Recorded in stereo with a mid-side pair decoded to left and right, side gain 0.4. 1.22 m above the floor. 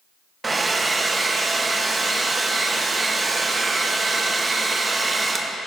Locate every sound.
0.4 s a hair dryer: 30° right, 0.9 m